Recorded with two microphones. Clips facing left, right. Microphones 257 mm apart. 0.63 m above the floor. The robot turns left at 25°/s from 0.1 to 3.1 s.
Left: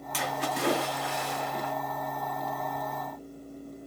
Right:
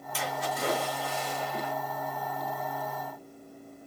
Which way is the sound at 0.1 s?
95° left.